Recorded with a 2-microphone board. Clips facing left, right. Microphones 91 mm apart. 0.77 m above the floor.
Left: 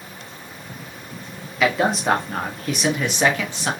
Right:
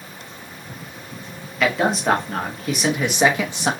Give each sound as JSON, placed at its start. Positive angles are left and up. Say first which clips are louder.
{"t": 1.6, "sound": "a man speaking", "louder": "even", "side_deg": 5, "distance_m": 1.6}